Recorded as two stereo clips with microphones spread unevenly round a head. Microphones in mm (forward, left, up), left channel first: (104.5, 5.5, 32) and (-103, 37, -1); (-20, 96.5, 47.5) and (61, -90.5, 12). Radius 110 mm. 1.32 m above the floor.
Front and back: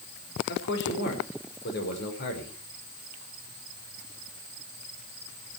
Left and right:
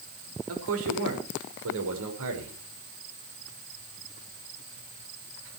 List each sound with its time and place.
0.5 s a man speaking: 55° right, 6 m